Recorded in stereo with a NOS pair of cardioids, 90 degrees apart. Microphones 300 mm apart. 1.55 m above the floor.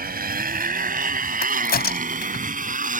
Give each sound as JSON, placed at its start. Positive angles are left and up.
{"t": 0.0, "sound": "a motorcycle", "azimuth_deg": -35}
{"t": 1.4, "sound": "a crack", "azimuth_deg": 35}